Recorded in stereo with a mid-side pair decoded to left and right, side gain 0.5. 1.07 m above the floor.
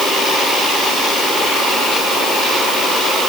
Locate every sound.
Only background noise.